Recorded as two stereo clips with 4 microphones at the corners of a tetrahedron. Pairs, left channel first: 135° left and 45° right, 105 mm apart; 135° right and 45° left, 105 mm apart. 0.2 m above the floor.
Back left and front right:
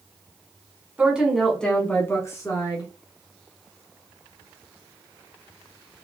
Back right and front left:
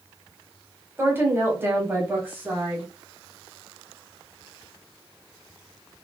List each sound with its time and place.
1.0 s a woman speaking: 15° left, 1.1 m; by 2.9 s 115° left, 1.4 m